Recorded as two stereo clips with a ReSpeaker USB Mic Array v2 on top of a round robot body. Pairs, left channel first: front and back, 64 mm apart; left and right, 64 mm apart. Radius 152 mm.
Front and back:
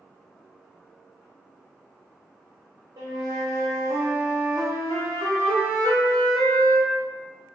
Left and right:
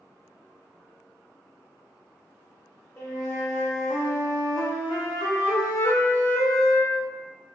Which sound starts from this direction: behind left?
A flute, at 3.0 s.